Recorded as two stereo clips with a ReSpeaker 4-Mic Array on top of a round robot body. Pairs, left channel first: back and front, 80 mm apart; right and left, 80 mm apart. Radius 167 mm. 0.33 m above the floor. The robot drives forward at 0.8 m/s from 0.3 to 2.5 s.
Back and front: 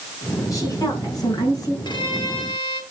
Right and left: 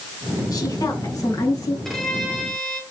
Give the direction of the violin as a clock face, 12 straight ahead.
6 o'clock.